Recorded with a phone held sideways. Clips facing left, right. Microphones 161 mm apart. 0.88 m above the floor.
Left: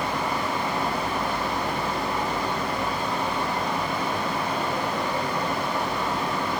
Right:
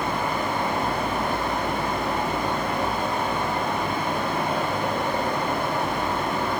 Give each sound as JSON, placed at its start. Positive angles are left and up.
{"t": 0.0, "sound": "a fan", "side_deg": -50, "distance_m": 0.9}